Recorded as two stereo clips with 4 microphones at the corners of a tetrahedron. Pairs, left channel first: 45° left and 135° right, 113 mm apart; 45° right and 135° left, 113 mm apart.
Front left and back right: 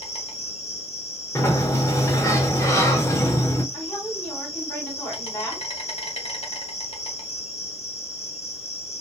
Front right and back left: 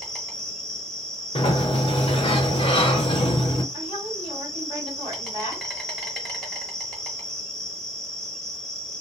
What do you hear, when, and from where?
0.0 s an insect: 40° left, 1.0 m
1.4 s a sliding door: 15° right, 0.7 m
3.7 s a woman speaking: 30° right, 1.9 m